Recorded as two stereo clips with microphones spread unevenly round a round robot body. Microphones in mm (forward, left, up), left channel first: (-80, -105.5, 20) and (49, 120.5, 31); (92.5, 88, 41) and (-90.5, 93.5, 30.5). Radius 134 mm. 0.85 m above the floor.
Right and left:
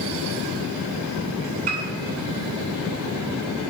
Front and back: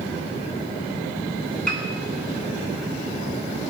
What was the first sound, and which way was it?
A piano, 80° left.